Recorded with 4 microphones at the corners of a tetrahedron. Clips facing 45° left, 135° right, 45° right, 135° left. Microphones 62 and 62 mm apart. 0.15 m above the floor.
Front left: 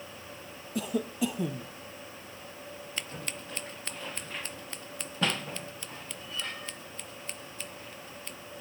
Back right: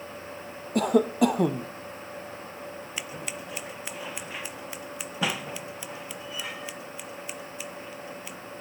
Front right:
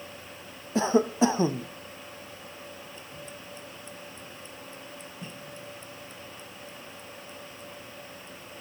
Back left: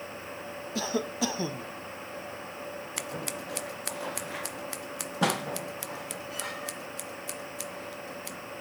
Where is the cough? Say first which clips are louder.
Back right 9 dB, front right 8 dB; 110° right.